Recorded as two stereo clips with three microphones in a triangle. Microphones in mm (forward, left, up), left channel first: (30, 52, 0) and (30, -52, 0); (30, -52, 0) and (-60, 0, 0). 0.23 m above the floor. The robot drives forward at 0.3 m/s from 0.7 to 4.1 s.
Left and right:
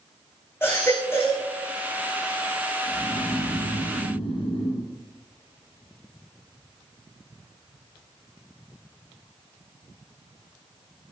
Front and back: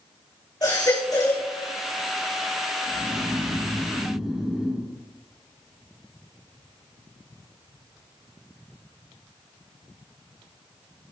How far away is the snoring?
About 6.5 m.